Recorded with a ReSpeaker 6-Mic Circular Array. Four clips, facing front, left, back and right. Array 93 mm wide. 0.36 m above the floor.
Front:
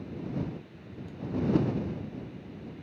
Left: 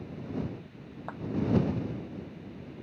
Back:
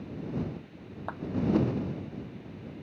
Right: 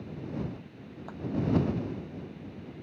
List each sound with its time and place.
1.1 s a clap: 155° left